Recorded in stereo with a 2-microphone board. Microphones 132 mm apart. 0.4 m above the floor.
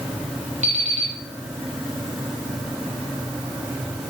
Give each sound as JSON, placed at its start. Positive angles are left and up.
{"t": 0.6, "sound": "an alarm clock", "side_deg": -70, "distance_m": 6.0}